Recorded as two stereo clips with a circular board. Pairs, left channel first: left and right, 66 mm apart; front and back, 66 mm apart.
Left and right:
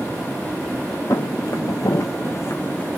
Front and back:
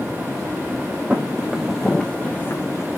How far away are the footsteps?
About 0.8 m.